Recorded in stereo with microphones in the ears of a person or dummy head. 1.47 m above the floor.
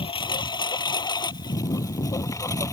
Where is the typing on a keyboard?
I don't hear typing on a keyboard.